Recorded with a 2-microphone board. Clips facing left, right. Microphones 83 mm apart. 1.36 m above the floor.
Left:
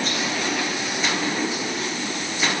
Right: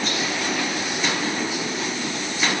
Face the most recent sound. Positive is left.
No sound to turn to.